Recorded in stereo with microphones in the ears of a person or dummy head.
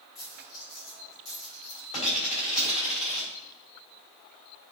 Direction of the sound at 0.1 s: 35° left (ahead or behind).